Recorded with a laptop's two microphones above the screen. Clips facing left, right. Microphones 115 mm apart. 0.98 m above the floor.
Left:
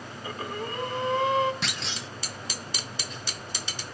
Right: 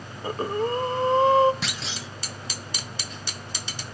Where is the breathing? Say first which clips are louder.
Right 9 dB; 35° right (ahead or behind), 1.1 m.